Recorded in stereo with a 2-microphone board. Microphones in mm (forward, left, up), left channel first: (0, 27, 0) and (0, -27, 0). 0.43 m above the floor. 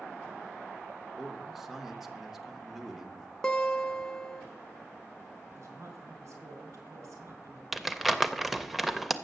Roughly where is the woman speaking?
Right.